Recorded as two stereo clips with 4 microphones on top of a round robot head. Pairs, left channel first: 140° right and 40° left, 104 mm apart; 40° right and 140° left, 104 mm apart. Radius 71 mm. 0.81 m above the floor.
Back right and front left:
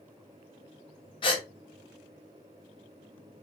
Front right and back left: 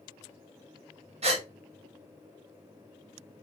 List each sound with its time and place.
1.2 s a gasp: 175° left, 1.3 m